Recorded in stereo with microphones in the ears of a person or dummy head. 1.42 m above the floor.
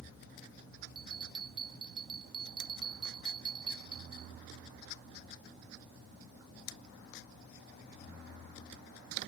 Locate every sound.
0.9 s a bell: 20° right (ahead or behind)